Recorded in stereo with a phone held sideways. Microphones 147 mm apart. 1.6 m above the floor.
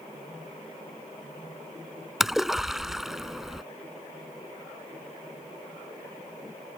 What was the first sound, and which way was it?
A splash, centre (ahead or behind).